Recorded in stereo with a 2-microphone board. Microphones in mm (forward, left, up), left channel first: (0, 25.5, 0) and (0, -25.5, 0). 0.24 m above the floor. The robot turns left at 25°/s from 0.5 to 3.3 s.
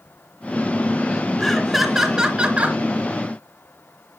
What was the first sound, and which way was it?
Laughter, 5° left.